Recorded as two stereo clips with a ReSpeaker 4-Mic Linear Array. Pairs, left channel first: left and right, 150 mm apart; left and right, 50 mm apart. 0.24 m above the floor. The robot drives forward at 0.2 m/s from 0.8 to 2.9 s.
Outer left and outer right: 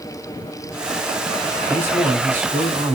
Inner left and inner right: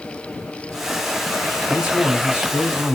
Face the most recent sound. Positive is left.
turn(degrees=-15)  # may be behind; listen again after turning